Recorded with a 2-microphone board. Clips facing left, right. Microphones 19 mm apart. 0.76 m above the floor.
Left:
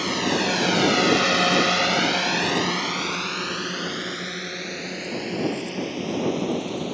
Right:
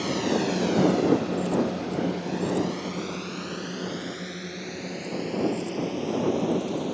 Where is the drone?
25° left (ahead or behind); by 7.0 s 20° left (ahead or behind).